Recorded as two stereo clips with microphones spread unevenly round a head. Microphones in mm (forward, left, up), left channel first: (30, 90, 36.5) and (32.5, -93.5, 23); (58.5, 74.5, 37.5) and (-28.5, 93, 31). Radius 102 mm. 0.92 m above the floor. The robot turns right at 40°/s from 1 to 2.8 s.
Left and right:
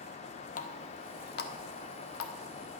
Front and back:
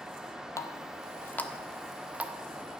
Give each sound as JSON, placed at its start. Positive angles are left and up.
{"t": 0.6, "sound": "a running tap", "azimuth_deg": 45, "distance_m": 1.2}